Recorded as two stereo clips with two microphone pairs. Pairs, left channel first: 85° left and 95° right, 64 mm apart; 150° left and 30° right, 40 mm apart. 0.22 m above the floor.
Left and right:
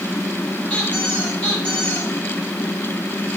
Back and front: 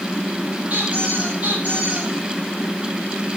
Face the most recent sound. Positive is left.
turn(degrees=15)